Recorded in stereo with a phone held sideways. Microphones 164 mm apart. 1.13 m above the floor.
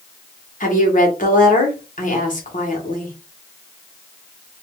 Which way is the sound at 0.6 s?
55° left (ahead or behind).